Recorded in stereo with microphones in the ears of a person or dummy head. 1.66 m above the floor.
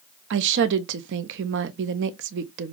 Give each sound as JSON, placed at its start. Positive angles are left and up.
{"t": 0.3, "sound": "a woman speaking", "side_deg": -70, "distance_m": 0.6}